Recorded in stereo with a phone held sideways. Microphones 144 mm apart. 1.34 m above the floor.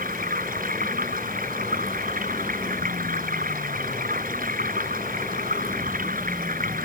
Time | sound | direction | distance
0.0 | running water | 75° right (ahead or behind) | ?